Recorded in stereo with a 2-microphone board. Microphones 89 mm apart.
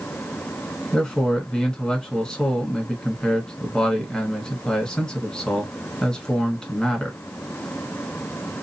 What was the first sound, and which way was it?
A man speaking, 10° left (ahead or behind).